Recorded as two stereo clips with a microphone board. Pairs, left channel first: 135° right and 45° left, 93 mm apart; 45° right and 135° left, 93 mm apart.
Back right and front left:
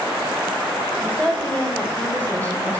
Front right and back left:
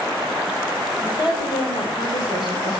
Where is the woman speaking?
55° right, 3.5 m; by 2.8 s 70° right, 4 m.